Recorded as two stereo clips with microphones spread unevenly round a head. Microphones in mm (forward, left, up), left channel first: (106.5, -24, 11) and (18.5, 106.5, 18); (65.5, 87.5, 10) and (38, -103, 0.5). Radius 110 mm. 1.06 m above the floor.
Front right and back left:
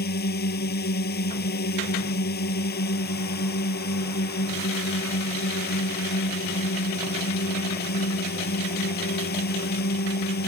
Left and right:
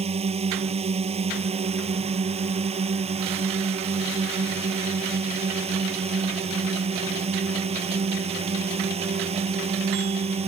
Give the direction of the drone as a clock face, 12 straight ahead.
1 o'clock.